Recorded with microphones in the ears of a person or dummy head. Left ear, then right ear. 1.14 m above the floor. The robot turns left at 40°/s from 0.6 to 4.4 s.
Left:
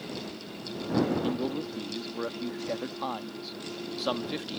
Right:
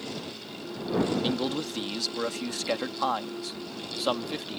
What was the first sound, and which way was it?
A man speaking, 45° right.